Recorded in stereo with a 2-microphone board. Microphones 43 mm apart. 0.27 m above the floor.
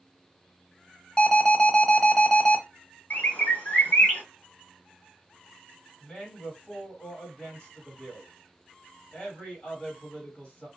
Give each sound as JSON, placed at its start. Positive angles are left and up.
{"t": 1.2, "sound": "an alarm", "side_deg": 25, "distance_m": 0.8}
{"t": 3.1, "sound": "a bird", "side_deg": 45, "distance_m": 2.0}
{"t": 6.0, "sound": "a man speaking", "side_deg": 20, "distance_m": 1.7}